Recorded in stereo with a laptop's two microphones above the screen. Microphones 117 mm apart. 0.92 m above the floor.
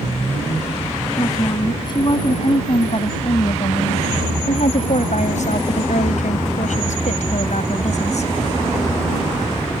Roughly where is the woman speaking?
Left.